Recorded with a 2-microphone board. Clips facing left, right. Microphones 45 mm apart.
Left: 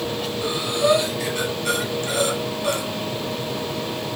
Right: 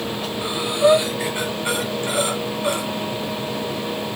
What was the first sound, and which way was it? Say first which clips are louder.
Breathing: right 4 dB; 25° right (ahead or behind).